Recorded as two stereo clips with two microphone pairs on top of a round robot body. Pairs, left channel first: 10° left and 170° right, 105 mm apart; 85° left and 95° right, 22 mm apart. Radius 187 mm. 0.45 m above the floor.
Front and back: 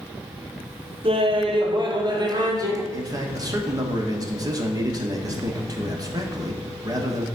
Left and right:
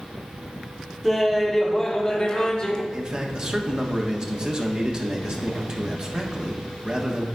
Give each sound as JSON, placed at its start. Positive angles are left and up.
{"t": 1.0, "sound": "laughter", "azimuth_deg": 175, "distance_m": 1.7}
{"t": 2.9, "sound": "a man speaking", "azimuth_deg": -130, "distance_m": 1.6}